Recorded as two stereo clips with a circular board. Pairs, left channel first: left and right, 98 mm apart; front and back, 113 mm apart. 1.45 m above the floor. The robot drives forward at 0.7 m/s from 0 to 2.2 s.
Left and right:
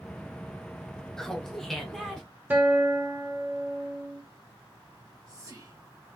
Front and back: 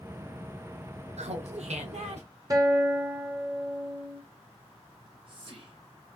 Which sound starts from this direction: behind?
Laughter, at 1.2 s.